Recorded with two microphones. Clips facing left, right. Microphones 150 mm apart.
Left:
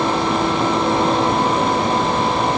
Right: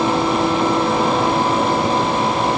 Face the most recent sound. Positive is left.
No sound to turn to.